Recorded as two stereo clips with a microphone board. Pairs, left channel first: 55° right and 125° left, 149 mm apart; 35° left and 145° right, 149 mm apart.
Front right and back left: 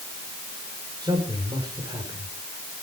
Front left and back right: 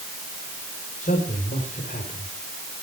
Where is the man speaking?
60° left, 4.5 m.